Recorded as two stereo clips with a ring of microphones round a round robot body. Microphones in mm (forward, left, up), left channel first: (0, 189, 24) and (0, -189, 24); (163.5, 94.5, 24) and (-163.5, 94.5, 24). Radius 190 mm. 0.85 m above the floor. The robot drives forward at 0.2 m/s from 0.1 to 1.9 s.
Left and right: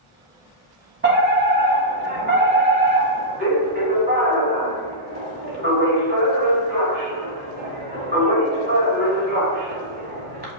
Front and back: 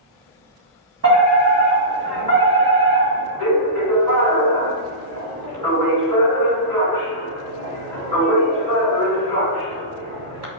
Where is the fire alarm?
145° right, 1.9 m; by 10.5 s 150° right, 2 m.